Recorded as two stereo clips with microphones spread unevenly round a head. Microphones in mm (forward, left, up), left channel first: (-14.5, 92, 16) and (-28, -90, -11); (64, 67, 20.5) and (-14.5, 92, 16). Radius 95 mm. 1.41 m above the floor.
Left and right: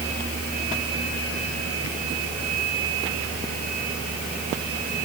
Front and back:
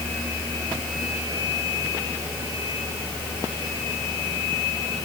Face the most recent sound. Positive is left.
No sound to turn to.